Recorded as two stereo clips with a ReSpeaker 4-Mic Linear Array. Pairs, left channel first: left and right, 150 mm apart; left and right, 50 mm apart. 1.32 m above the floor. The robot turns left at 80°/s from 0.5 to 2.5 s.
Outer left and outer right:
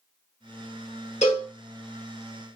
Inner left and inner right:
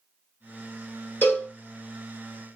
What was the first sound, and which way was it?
A cowbell, 45° left (ahead or behind).